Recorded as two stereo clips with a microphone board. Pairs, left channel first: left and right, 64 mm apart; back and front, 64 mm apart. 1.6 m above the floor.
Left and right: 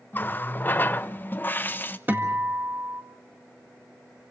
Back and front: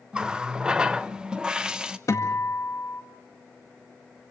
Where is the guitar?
150° right, 1.8 m.